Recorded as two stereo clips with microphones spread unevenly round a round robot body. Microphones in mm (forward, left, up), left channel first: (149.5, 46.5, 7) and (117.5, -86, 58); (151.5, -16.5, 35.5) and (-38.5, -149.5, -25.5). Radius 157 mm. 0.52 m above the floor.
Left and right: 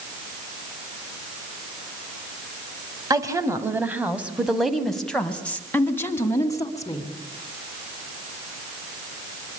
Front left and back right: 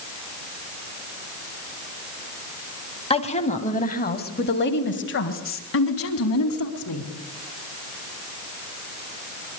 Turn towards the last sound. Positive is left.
turn(degrees=15)